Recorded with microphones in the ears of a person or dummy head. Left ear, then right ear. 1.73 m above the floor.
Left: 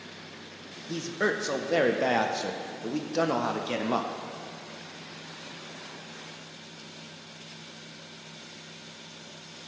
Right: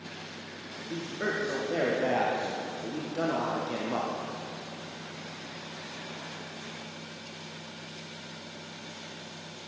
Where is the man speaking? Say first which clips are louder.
Left 4 dB; 85° left, 0.5 m.